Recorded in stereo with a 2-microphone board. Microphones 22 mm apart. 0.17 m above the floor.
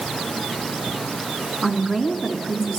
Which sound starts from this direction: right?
A woman speaking, at 1.6 s.